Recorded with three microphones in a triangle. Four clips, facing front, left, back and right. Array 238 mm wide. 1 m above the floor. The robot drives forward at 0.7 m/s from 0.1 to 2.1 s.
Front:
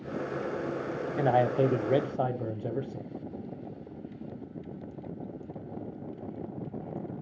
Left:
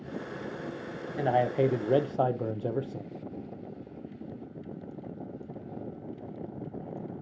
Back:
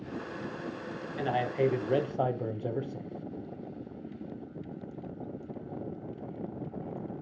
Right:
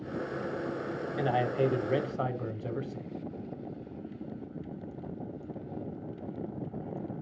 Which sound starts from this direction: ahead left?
A man speaking, at 1.2 s.